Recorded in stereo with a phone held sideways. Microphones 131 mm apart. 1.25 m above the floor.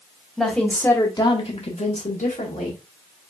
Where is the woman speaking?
Centre (ahead or behind), 1.4 m; by 2.8 s 75° left (ahead or behind), 1.7 m.